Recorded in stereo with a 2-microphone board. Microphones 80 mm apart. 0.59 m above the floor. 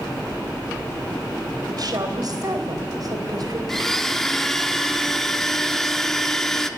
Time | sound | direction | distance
1.7 | a woman speaking | 55° right (ahead or behind) | 3.5 m
3.7 | a blender | 5° left (ahead or behind) | 1.1 m